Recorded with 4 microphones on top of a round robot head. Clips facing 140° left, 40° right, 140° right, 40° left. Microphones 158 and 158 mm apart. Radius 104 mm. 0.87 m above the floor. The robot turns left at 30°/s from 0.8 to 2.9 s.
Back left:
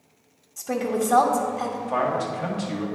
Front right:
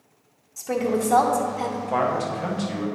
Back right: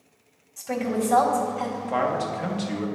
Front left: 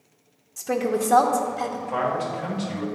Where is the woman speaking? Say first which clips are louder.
Front right 1 dB, front left 2 dB; 45° left, 0.9 m; by 1.8 s 15° left, 0.9 m.